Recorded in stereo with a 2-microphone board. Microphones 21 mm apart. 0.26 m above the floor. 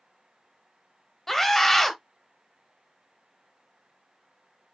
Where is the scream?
10° left (ahead or behind), 1.1 m.